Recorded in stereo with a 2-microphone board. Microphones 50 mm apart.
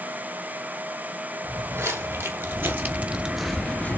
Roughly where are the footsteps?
Right.